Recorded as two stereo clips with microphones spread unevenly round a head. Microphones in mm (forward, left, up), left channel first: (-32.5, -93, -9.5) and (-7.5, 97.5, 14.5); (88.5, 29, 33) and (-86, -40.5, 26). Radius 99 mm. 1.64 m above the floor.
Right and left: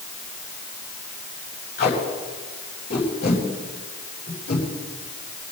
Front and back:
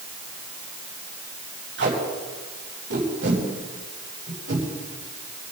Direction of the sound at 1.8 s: 135° right.